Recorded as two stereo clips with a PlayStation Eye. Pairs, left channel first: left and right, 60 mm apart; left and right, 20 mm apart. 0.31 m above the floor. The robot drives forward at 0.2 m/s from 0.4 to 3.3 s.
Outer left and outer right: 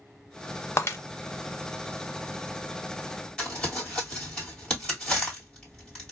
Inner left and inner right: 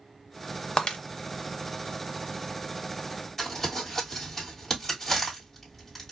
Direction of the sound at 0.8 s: 50° left (ahead or behind).